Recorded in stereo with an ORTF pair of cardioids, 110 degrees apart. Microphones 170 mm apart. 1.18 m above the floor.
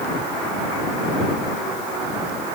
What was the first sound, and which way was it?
Only background noise.